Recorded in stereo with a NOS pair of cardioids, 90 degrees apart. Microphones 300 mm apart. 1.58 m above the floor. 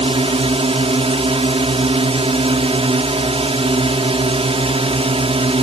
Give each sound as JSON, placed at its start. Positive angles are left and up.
{"t": 0.0, "sound": "a drone", "azimuth_deg": -20}